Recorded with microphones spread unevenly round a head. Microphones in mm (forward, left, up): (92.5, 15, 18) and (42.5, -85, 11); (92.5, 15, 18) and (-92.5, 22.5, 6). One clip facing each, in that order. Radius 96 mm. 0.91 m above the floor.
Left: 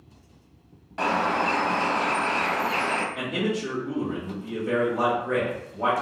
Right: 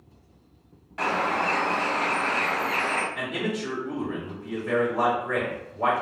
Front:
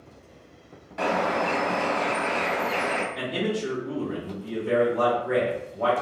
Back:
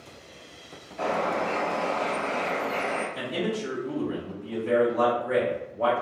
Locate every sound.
1.0 s a bird: straight ahead, 0.7 m
3.1 s a man speaking: 135° left, 1.0 m